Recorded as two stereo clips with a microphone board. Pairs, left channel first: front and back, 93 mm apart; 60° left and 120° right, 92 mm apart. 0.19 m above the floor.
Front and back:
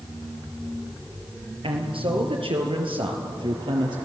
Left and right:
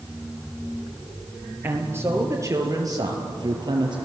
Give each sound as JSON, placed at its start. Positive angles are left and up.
{"t": 1.6, "sound": "a man speaking", "azimuth_deg": 175, "distance_m": 4.5}